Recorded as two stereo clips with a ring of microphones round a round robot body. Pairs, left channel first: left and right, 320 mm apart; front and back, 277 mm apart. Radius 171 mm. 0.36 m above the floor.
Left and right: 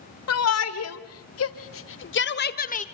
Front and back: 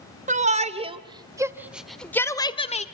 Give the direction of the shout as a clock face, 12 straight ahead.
8 o'clock.